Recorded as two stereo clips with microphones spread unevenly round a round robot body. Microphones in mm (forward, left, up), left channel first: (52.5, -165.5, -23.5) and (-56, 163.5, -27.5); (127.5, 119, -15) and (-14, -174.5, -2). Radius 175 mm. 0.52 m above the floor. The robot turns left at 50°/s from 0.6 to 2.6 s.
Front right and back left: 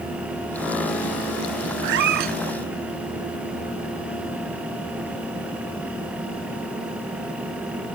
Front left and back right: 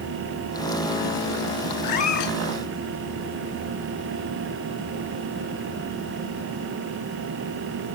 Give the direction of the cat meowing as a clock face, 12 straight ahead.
8 o'clock.